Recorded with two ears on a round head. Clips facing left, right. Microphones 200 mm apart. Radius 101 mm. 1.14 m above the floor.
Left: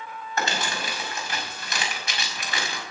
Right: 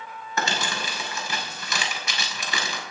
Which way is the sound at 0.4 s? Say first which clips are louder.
Even; 75° right (ahead or behind).